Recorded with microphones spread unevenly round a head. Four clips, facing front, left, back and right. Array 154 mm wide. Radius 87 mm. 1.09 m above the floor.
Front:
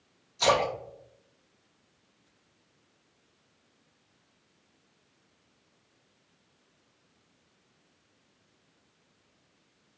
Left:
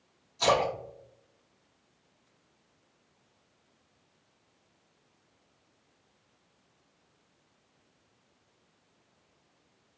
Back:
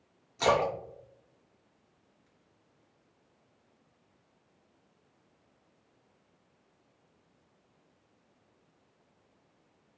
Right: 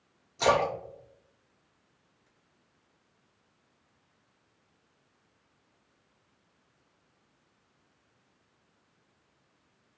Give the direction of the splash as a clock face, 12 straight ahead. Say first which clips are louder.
Right 1 dB, front 1 dB; 3 o'clock.